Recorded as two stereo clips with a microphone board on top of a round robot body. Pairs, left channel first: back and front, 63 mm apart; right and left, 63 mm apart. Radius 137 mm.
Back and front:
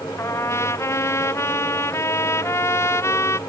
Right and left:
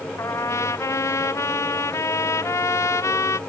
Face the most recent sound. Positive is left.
turn(degrees=-135)